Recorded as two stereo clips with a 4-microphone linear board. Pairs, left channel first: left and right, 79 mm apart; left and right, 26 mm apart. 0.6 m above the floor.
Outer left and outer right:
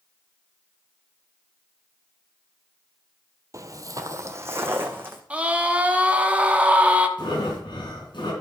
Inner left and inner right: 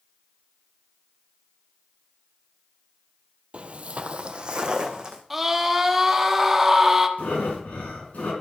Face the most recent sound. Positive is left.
turn(degrees=90)